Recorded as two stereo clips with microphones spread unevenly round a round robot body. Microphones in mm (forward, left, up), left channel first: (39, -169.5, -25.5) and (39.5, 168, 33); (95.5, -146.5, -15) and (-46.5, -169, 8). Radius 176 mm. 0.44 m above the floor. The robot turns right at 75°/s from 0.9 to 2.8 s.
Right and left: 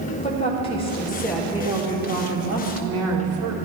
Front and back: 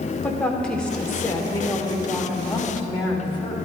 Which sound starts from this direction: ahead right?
A woman speaking, at 0.2 s.